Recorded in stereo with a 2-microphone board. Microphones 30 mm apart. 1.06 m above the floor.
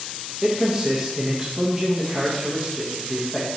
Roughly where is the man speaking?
Centre.